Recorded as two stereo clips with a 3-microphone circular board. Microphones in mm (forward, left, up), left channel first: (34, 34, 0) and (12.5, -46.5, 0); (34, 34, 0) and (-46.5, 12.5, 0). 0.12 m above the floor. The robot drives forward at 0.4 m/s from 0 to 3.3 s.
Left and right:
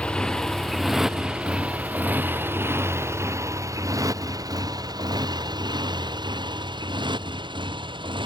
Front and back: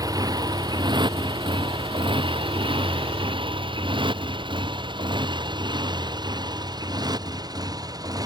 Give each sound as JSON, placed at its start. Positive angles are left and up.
{"t": 0.0, "sound": "a motorcycle", "azimuth_deg": 150}